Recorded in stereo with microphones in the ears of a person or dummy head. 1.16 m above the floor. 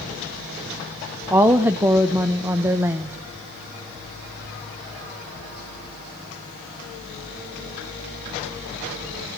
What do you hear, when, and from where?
1.3 s a woman speaking: 15° right (ahead or behind), 0.6 m